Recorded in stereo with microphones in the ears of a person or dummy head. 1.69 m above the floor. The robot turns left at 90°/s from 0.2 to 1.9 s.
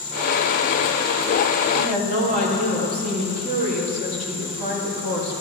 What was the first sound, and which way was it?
A woman speaking, 65° right (ahead or behind).